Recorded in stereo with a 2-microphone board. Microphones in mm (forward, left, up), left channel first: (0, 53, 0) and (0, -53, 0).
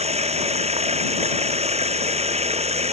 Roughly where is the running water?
Right.